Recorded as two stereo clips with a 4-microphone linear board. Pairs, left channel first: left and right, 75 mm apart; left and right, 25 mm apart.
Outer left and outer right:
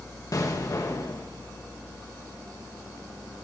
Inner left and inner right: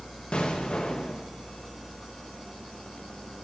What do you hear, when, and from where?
0.3 s an explosion: 50° left (ahead or behind), 1.3 m